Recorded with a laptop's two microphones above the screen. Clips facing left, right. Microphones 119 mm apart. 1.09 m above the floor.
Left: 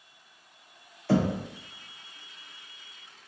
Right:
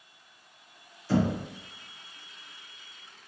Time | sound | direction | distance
1.1 | knocking | 60° left (ahead or behind) | 0.8 m